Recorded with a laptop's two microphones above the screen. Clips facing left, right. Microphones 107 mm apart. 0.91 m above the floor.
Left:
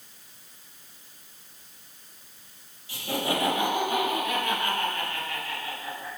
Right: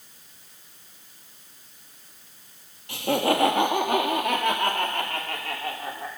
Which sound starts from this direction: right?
Laughter, at 2.9 s.